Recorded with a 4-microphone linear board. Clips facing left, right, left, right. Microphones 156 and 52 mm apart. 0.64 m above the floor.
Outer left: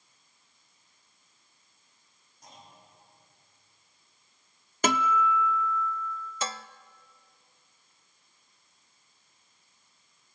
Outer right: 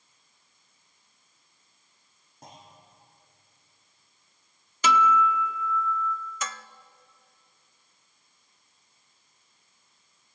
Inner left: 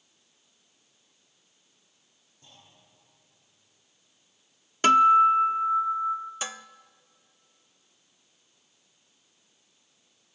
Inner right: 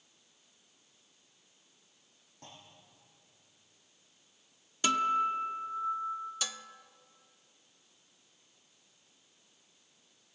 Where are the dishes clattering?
30° left (ahead or behind), 0.5 m.